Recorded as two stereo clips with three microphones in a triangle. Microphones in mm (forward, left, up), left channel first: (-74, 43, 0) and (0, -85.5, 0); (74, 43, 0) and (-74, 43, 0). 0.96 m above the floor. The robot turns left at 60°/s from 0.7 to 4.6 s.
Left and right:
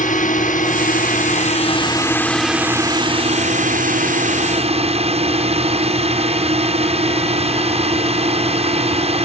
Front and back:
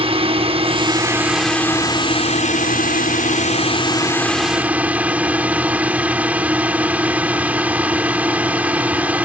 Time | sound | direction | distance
0.0 | a drone | 135° left | ?